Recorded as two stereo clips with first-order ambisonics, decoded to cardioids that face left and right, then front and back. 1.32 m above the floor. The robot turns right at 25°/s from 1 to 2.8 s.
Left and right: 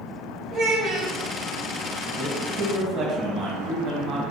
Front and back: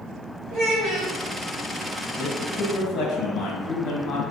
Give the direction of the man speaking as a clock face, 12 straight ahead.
2 o'clock.